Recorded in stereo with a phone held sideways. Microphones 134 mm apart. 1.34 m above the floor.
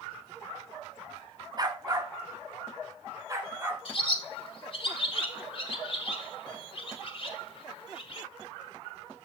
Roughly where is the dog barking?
Right.